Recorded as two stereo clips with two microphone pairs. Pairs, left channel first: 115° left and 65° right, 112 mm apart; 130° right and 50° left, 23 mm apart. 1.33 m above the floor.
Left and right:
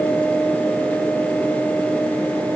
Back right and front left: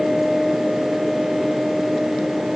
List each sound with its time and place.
Only background noise.